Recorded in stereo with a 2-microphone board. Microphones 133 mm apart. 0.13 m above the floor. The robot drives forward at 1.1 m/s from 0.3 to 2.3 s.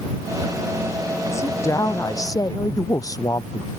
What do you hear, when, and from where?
1.3 s a woman speaking: 20° left (ahead or behind); by 3.7 s 25° left (ahead or behind)